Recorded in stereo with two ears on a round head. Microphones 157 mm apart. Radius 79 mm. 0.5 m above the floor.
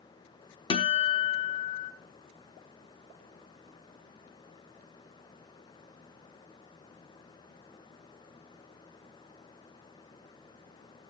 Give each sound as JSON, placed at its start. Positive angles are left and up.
{"t": 0.7, "sound": "a guitar", "side_deg": 30, "distance_m": 0.9}